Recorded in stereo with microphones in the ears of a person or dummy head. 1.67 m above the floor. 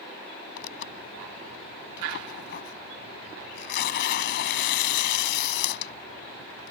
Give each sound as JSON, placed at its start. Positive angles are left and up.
{"t": 0.6, "sound": "tearing paper", "side_deg": 65}